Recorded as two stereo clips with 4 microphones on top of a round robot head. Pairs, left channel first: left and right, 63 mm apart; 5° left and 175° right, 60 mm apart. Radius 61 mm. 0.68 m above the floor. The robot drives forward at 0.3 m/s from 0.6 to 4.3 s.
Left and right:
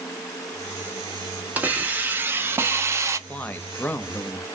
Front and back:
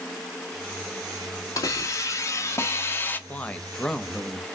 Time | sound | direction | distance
1.6 | a hiss | 25° right | 0.9 m
3.3 | a man speaking | 45° left | 0.6 m